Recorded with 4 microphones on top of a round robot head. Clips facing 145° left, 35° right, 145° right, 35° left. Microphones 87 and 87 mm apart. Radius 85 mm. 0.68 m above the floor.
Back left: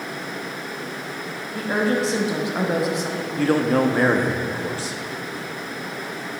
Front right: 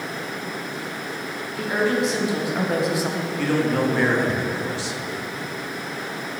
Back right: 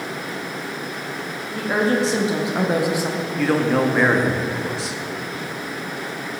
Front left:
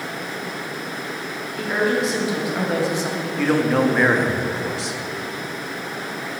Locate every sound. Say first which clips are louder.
1.5 s a woman speaking: even, back right 1 dB; 175° left, 1.5 m; by 3.3 s 60° right, 1.0 m
3.4 s a man speaking: back left 3 dB, even; 125° left, 1.1 m